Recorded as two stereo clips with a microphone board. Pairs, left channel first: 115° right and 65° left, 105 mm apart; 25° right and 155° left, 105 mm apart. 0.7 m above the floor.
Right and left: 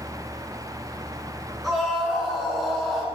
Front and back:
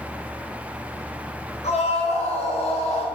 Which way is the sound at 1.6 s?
25° right.